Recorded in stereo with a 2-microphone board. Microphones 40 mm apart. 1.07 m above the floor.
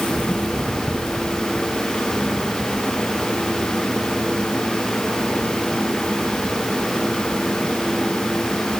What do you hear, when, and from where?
Only background noise.